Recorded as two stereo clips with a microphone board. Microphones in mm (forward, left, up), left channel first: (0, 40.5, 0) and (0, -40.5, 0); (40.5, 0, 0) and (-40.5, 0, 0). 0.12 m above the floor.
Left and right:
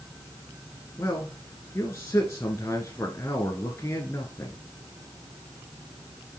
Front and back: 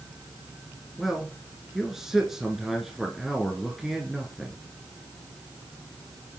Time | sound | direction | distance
1.0 | a man speaking | 95° left | 1.4 m